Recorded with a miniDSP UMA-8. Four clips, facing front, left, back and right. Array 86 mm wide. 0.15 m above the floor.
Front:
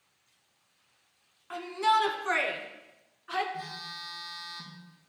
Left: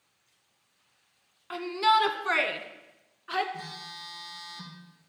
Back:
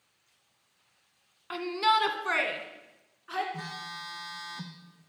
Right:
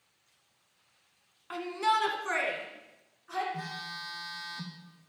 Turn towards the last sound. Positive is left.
turn(degrees=-165)